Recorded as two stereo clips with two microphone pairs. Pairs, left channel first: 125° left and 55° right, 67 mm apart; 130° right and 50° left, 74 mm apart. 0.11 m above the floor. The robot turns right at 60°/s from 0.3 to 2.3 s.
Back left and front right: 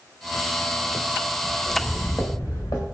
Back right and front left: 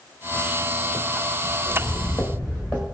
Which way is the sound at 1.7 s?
155° right.